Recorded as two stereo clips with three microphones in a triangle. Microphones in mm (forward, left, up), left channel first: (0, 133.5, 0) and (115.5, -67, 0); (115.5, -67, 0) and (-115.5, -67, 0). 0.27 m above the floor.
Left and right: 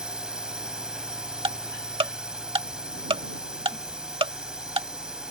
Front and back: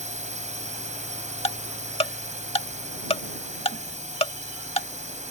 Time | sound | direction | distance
0.0 | a drone | 145° right | ?
1.4 | ticking | 25° right | ?